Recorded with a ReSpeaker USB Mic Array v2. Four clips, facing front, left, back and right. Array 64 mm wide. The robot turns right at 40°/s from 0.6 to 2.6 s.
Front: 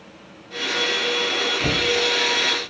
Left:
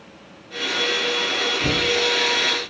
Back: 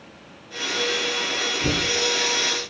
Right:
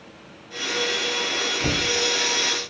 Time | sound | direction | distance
1.6 | knocking | 30° right | 2.0 m